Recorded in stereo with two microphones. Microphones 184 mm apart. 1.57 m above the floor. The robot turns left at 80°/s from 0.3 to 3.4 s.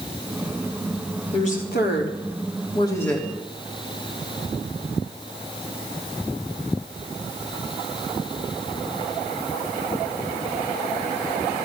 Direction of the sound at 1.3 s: 145° left.